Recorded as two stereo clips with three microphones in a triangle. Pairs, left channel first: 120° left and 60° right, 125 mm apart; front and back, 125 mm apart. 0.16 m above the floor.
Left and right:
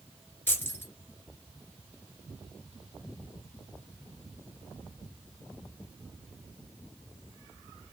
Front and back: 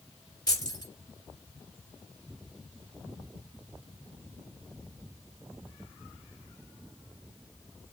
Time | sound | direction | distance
0.5 | keys jangling | 50° left | 1.9 m